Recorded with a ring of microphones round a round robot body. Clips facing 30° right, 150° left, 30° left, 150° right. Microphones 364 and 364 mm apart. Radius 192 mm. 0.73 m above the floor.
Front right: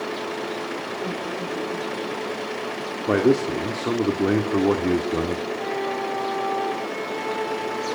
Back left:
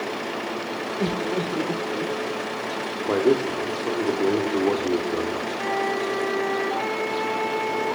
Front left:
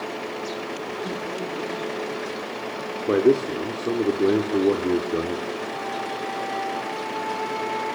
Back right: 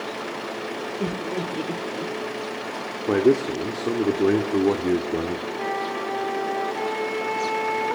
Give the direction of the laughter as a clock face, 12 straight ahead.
6 o'clock.